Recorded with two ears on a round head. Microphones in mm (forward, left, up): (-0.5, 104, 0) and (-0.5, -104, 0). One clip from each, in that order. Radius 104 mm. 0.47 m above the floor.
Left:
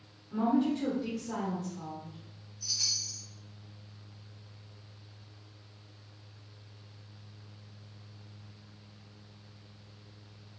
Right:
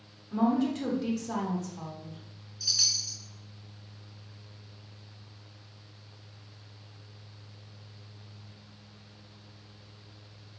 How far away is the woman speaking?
About 1.2 m.